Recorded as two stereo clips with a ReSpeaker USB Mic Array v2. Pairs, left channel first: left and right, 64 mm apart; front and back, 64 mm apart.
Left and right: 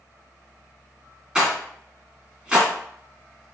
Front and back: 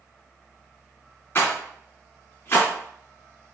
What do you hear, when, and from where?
1.4 s a rattle: 20° right, 1.6 m